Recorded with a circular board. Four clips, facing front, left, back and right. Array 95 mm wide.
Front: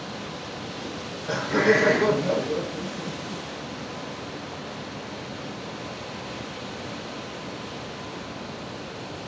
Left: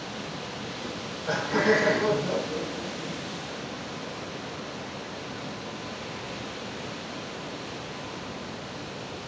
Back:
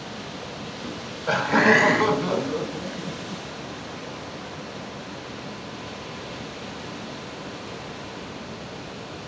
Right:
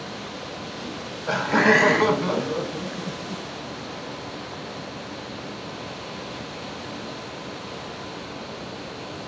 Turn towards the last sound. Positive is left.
turn(degrees=-115)